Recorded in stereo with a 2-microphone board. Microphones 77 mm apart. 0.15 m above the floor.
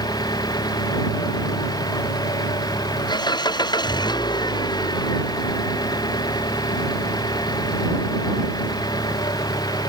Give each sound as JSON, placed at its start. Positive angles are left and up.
{"t": 0.0, "sound": "an engine running", "side_deg": 65}